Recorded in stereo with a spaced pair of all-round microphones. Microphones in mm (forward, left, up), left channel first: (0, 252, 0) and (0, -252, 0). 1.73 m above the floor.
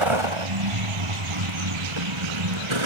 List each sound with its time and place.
0.0 s a vehicle: 75° right (ahead or behind); by 2.9 s 70° right (ahead or behind)